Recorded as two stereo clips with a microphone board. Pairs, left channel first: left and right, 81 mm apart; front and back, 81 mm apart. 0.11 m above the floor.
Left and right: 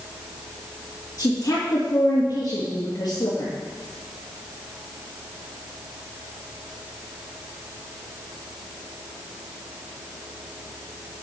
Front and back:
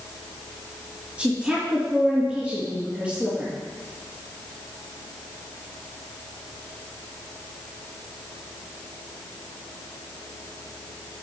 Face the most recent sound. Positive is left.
turn(degrees=105)